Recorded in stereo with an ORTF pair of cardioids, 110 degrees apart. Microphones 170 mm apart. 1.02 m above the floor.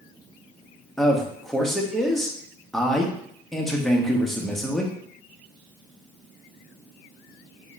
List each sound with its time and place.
1.0 s a man speaking: 5° left, 1.1 m